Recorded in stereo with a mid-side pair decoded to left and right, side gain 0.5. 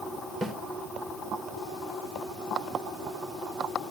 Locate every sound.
0.4 s a snare drum: 45° right, 2.5 m